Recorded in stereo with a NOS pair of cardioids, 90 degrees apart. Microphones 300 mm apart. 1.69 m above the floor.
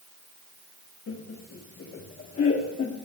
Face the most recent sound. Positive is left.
turn(degrees=45)